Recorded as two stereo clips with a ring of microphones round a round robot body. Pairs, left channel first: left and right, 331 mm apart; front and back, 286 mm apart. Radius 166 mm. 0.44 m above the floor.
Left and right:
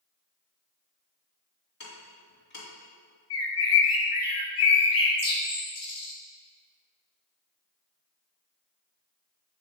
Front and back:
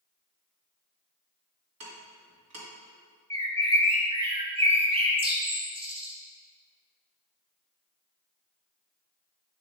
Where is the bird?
110° left, 2 m.